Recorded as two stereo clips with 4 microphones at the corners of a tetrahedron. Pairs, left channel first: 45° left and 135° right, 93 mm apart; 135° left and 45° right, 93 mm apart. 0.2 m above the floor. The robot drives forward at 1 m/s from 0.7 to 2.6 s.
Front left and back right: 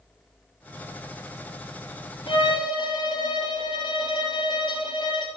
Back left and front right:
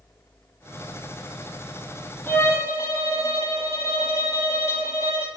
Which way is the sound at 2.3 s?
70° left.